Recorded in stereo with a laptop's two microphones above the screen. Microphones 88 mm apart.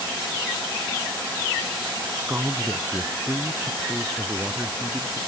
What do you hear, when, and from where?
2.2 s a man speaking: 20° right (ahead or behind)